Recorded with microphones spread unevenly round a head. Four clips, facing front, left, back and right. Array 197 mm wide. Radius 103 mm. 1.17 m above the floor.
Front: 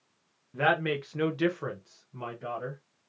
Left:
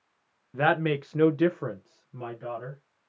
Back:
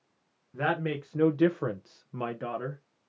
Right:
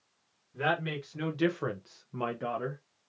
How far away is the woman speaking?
About 0.9 m.